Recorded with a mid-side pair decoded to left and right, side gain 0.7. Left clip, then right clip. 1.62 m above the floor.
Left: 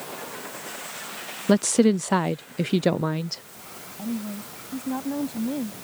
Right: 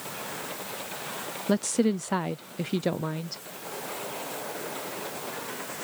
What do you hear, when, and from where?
1.5 s a woman speaking: 30° left
4.0 s a woman speaking: 70° left